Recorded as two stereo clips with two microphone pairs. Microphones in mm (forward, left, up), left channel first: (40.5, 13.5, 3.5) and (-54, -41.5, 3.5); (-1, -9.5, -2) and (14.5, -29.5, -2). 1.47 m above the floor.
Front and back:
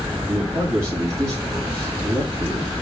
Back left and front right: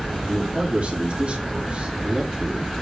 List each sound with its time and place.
0.3 s a man speaking: 90° right, 3.5 m